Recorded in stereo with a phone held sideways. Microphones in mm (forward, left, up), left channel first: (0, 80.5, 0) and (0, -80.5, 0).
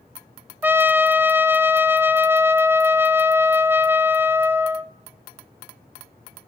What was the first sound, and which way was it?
A trumpet, 10° right (ahead or behind).